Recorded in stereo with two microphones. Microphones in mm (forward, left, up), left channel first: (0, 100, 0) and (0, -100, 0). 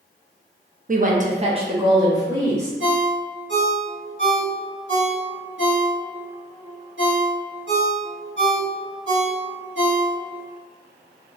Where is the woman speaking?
45° right (ahead or behind), 0.5 m; by 2.7 s 15° right (ahead or behind), 1.4 m.